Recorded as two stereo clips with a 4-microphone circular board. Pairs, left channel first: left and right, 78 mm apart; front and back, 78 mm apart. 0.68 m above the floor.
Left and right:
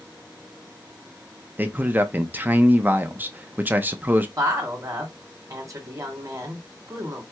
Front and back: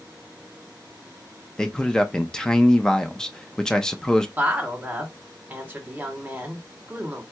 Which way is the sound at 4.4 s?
120° right.